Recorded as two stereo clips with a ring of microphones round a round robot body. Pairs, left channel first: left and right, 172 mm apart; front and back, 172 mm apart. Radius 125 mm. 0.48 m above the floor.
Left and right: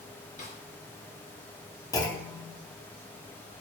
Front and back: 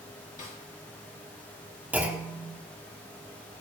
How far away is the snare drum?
About 2.5 m.